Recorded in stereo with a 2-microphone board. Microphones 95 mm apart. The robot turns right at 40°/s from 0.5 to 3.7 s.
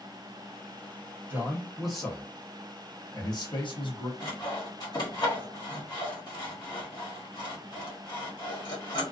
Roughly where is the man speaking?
Ahead right.